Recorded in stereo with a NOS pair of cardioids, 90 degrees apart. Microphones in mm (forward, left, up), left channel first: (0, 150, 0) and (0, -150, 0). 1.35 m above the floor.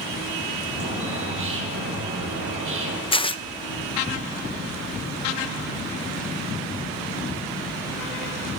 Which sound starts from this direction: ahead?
Tearing paper, at 3.1 s.